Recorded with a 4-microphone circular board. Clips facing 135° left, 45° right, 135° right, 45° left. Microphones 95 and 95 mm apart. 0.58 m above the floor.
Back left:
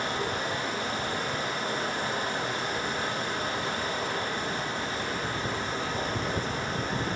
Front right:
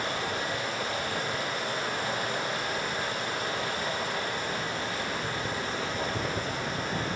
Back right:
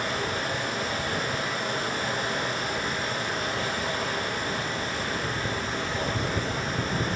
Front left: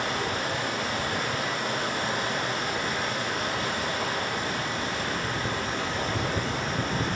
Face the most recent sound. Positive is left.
turn(degrees=75)